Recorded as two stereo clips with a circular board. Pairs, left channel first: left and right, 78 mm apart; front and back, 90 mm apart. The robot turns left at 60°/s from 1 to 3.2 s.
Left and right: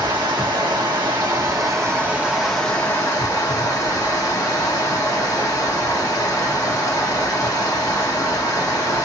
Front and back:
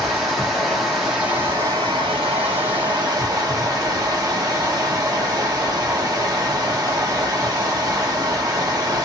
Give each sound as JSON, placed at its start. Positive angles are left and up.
{"t": 0.0, "sound": "running water", "azimuth_deg": -95, "distance_m": 1.3}